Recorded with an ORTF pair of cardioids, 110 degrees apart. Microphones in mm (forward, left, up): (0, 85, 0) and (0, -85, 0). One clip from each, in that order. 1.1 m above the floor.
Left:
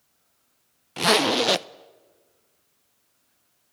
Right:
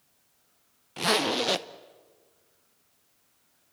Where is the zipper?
25° left, 0.5 m.